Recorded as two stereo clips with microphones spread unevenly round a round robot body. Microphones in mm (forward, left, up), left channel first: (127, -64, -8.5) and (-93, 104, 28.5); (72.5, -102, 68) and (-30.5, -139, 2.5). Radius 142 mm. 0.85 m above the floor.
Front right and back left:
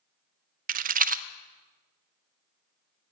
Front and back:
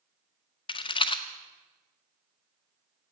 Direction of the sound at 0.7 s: 90° left.